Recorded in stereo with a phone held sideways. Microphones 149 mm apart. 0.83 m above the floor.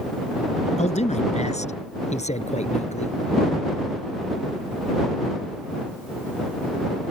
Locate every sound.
0.8 s a man speaking: 55° left (ahead or behind)